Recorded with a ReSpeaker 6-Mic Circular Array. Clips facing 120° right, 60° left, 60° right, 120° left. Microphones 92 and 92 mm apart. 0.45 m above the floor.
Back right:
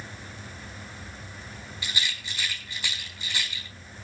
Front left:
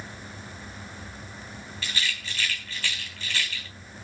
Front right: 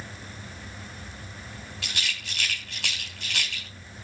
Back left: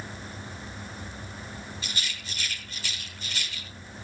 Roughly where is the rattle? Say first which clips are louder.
Front left 1 dB, front right 2 dB; ahead right.